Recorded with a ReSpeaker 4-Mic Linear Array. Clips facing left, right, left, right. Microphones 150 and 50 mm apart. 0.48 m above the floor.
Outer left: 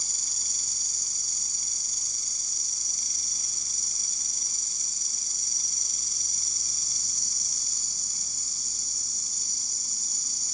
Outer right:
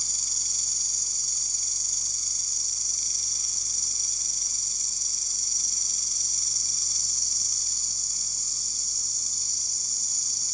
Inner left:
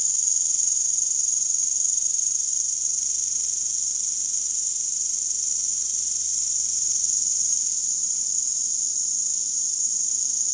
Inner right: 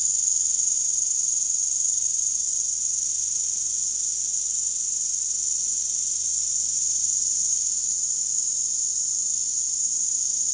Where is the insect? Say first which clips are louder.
Even, inner left 1 dB; 50° left (ahead or behind), 1.3 m.